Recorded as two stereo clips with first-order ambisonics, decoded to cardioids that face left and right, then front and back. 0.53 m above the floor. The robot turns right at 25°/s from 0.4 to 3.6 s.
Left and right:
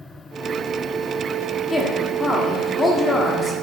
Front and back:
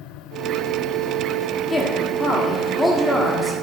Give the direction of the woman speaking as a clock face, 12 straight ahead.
11 o'clock.